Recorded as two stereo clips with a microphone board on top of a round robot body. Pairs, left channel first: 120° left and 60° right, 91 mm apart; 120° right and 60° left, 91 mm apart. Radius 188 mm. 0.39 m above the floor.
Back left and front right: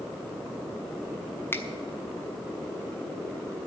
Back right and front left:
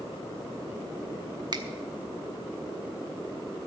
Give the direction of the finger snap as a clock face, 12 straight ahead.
10 o'clock.